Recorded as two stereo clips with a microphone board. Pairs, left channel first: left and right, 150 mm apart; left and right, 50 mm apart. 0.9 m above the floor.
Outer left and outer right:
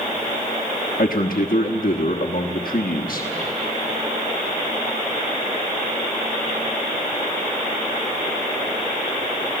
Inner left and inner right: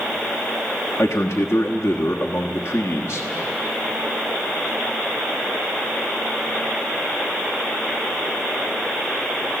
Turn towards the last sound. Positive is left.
turn(degrees=70)  # may be behind; listen again after turning